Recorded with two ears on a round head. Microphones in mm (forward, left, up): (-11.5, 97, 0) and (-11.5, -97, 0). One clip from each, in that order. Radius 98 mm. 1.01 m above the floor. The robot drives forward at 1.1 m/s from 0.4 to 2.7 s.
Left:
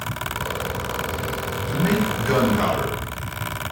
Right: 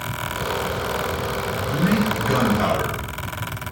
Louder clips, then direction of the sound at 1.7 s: Even; 35° left (ahead or behind).